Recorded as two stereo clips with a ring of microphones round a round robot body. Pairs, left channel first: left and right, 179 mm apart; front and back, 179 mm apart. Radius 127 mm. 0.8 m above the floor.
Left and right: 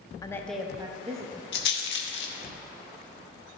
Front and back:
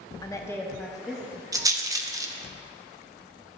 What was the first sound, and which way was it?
A woman speaking, 45° left.